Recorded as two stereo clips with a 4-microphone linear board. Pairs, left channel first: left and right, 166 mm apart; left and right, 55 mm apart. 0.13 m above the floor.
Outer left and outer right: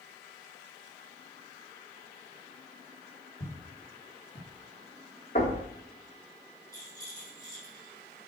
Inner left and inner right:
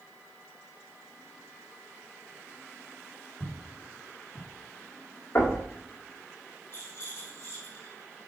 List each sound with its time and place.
3.4 s footsteps: 50° left (ahead or behind), 4 m; by 4.5 s 55° left (ahead or behind), 4.5 m
5.3 s knocking: 50° left (ahead or behind), 5 m
6.7 s a rattle: 50° left (ahead or behind), 4 m